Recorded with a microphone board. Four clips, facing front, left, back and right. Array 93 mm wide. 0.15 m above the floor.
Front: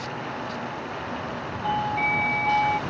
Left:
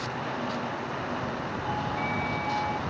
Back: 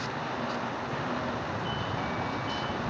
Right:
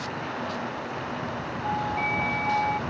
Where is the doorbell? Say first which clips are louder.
Right 4 dB, front 8 dB; 20° right.